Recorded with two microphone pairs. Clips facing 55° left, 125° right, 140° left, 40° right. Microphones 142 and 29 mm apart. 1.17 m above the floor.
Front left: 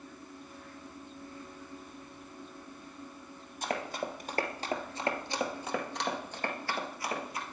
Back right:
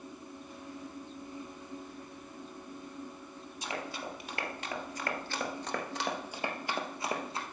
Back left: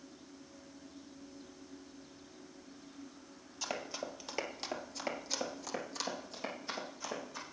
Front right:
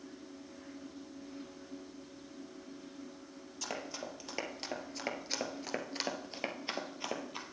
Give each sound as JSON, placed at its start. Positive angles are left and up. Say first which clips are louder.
{"t": 3.6, "sound": "running footsteps", "louder": "front left 5 dB, back left 1 dB", "azimuth_deg": 60, "distance_m": 1.7}